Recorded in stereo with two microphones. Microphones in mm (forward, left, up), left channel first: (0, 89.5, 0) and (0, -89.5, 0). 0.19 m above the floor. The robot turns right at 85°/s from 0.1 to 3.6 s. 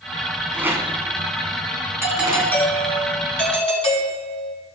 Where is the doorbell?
25° right, 3 m; by 4.5 s 110° left, 3 m.